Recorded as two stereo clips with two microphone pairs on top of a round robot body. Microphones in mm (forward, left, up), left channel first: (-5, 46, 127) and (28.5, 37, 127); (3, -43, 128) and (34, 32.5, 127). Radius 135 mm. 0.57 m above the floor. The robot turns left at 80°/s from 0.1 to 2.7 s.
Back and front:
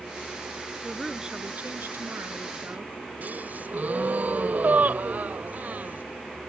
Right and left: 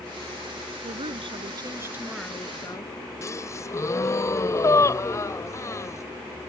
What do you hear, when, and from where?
0.8 s a woman speaking: 90° left; by 2.9 s 60° right
3.2 s a gasp: 60° right